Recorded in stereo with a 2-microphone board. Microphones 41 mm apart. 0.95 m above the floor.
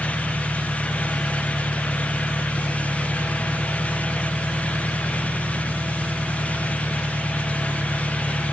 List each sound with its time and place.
0.0 s an engine running: 70° right (ahead or behind)